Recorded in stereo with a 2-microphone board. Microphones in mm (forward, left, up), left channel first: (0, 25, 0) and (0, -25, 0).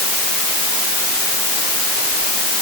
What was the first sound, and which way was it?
Only background noise.